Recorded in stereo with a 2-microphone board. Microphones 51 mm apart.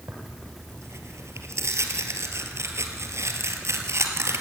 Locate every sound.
0.1 s tearing paper: 60° right (ahead or behind), 2.5 m